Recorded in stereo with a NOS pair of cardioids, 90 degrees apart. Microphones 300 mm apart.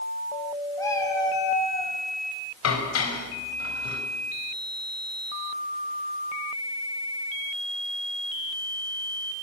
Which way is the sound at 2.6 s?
55° left.